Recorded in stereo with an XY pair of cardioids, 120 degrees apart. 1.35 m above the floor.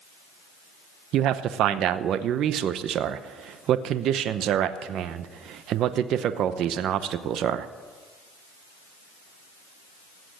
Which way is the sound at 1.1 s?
65° right.